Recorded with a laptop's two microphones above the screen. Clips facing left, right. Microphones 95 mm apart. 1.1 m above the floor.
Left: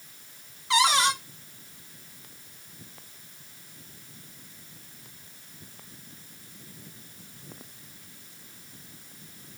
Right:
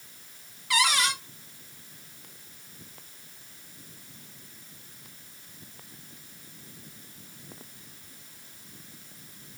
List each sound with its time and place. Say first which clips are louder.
0.7 s a cupboard door: left 4 dB; 25° left (ahead or behind), 0.5 m